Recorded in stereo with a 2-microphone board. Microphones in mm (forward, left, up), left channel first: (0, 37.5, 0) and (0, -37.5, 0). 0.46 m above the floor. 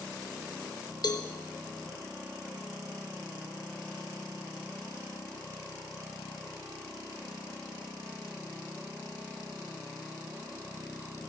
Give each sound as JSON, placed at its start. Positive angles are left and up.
{"t": 1.0, "sound": "a cowbell", "side_deg": 55, "distance_m": 0.6}